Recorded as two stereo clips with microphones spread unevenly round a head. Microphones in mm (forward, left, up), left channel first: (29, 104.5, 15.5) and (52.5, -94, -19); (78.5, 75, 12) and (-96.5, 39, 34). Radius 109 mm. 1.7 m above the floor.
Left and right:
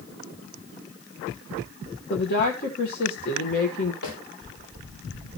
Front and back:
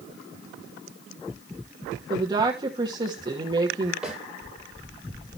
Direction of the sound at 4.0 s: 105° left.